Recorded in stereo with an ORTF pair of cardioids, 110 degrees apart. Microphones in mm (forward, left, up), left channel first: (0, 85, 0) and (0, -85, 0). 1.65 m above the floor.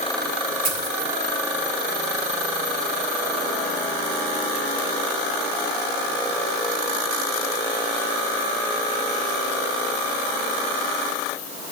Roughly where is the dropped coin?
Ahead right.